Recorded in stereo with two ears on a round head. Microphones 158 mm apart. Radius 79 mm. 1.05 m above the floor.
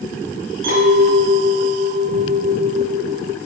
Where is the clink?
85° right, 3 m.